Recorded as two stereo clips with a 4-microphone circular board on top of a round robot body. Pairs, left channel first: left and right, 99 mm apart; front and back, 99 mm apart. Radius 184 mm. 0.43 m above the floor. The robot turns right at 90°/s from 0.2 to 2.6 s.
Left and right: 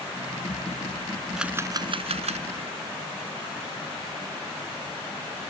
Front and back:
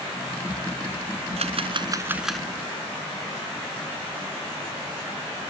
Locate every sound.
1.4 s a camera shutter: 175° right; by 2.5 s 75° right